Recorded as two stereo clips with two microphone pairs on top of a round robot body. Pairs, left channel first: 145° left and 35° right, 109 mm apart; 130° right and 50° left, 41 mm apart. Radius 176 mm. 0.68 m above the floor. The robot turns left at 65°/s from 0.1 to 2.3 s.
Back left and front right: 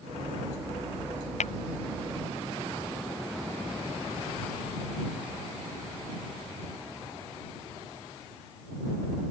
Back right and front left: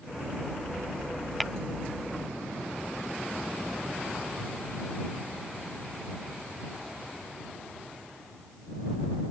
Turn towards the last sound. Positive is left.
turn(degrees=80)